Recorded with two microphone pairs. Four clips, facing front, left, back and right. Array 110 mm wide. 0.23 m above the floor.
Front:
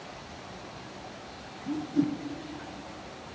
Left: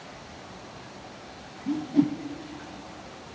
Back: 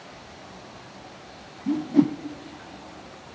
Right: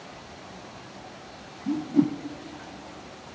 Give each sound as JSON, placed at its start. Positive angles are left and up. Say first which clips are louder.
{"t": 1.7, "sound": "a whoosh", "louder": "right 1 dB, back 7 dB", "azimuth_deg": 170, "distance_m": 0.5}